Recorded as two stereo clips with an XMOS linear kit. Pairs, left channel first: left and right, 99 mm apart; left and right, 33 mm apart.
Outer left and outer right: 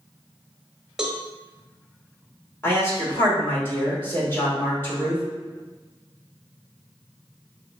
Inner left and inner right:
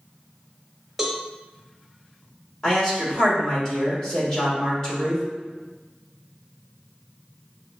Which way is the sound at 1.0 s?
5° right (ahead or behind).